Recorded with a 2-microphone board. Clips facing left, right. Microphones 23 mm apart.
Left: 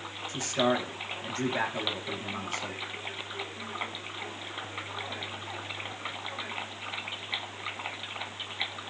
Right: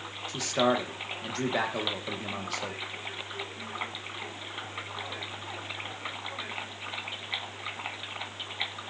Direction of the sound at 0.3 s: 70° right (ahead or behind).